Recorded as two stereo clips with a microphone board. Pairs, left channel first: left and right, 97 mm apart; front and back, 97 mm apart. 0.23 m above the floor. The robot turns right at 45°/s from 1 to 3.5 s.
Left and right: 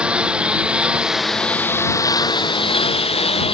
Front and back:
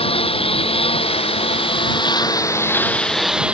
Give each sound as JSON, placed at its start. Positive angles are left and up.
{"t": 0.0, "sound": "a lawn mower", "azimuth_deg": -10}